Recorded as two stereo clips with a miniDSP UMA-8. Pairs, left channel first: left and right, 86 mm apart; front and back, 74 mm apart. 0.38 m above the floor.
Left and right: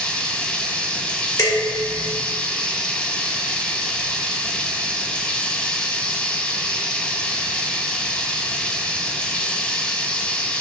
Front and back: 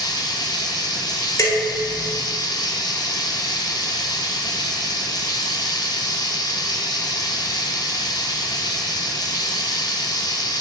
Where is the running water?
10° left, 1.3 m.